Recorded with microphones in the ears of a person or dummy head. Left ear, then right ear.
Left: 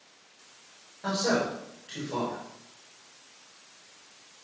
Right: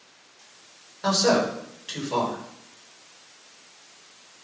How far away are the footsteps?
I don't hear footsteps.